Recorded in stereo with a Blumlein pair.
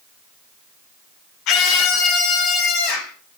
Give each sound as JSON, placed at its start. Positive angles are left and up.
{"t": 1.5, "sound": "a scream", "azimuth_deg": 40, "distance_m": 1.1}